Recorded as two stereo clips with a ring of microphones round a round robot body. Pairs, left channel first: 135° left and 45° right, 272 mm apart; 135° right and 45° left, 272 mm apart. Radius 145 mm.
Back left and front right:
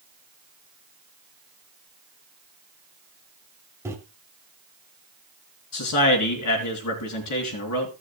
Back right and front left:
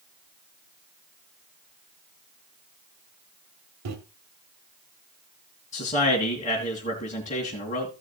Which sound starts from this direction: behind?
A man speaking, at 5.7 s.